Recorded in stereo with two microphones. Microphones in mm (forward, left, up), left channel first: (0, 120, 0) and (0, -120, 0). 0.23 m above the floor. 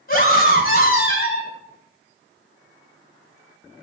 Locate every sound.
0.1 s a scream: 45° left (ahead or behind), 1.5 m